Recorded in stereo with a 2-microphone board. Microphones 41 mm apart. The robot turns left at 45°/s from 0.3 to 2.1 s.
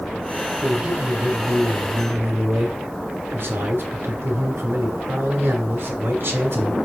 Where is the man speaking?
15° right, 2.0 m; by 6.8 s 85° right, 2.0 m.